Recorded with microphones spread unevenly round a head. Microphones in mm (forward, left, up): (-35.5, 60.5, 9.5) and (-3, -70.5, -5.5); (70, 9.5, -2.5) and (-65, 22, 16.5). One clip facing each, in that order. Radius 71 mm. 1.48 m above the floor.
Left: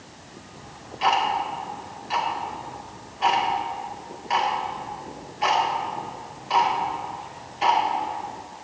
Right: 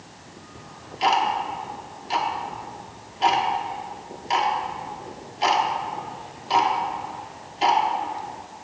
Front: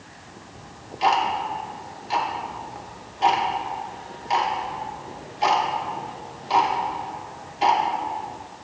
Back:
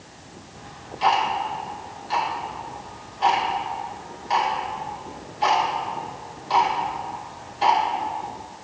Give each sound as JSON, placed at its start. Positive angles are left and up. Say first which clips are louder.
{"t": 0.6, "sound": "ticking", "louder": "right 2 dB, front 1 dB", "azimuth_deg": -70, "distance_m": 1.1}